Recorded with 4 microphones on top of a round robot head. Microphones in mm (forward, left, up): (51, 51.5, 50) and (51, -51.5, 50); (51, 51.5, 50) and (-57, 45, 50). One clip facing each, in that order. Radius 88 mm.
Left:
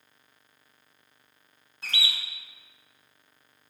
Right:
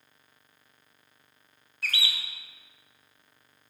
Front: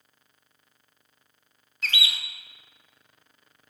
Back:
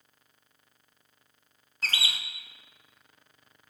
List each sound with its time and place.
1.8 s a bird: 145° left, 0.5 m